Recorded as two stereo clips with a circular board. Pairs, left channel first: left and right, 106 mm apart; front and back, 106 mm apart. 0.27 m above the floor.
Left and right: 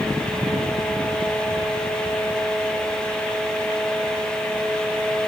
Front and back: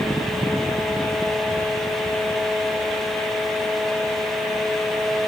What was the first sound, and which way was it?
Only background noise.